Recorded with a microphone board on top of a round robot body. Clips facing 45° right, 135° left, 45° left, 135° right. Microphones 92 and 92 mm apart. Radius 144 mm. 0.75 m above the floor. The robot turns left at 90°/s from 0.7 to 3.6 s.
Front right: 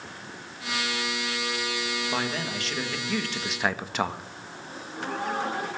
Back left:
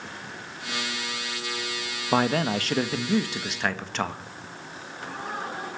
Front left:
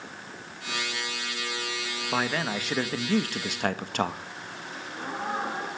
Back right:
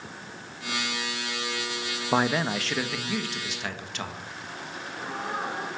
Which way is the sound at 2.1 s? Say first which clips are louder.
Back left 11 dB, back right 4 dB; 170° left.